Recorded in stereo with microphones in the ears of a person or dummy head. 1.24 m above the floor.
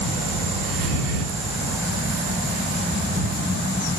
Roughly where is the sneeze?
No sneeze in this recording.